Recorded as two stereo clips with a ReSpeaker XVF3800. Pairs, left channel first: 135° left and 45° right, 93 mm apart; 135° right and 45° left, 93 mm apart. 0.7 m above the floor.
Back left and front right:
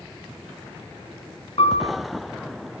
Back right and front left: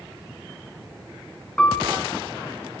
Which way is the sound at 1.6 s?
145° left.